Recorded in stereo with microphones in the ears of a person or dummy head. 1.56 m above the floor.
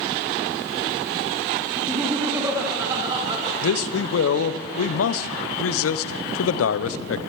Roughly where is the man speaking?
Left.